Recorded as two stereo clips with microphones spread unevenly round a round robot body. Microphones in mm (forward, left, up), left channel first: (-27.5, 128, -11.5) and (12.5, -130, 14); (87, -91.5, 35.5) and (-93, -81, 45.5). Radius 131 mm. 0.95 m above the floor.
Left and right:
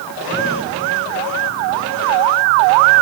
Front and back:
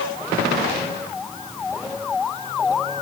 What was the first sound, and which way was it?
Only background noise.